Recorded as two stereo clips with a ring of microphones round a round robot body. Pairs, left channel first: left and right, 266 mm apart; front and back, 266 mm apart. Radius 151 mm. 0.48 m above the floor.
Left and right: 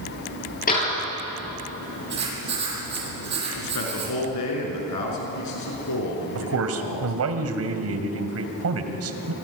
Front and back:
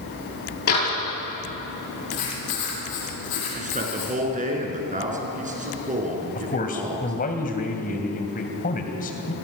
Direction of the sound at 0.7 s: 30° left.